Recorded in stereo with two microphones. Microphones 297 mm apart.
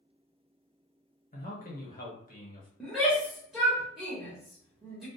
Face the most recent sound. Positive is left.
turn(degrees=0)  # may be behind; listen again after turning